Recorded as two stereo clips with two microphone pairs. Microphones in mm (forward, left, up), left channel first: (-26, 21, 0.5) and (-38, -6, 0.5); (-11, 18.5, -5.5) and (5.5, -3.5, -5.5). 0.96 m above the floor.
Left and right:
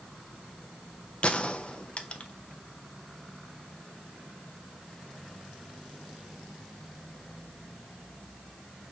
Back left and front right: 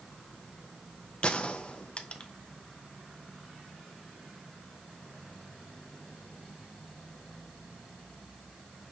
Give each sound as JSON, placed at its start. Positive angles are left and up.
{"t": 1.2, "sound": "a gunshot", "azimuth_deg": 100, "distance_m": 0.5}